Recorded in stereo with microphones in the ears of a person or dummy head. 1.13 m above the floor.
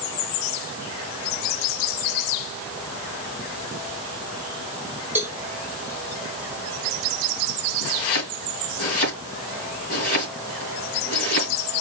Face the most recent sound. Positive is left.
turn(degrees=50)  # may be behind; listen again after turning